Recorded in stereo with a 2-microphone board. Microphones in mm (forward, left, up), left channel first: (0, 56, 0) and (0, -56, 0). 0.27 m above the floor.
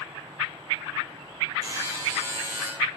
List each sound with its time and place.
1.6 s a buzzer: 25° right (ahead or behind), 3.5 m